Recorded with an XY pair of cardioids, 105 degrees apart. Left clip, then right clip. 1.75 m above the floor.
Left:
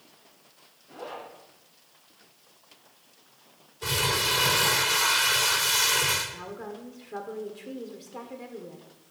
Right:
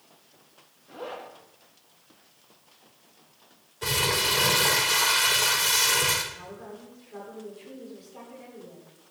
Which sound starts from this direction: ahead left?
A woman speaking, at 6.3 s.